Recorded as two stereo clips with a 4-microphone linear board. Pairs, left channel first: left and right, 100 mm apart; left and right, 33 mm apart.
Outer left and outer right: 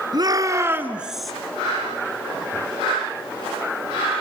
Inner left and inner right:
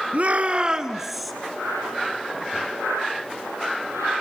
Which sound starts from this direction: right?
A shout, at 0.1 s.